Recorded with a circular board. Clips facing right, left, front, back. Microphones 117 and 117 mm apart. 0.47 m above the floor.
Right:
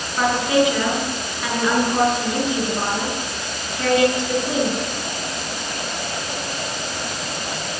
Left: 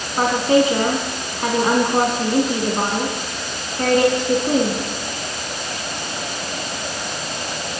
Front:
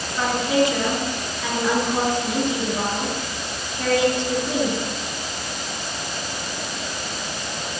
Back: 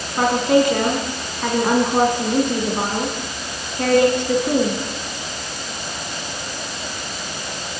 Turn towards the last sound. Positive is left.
turn(degrees=140)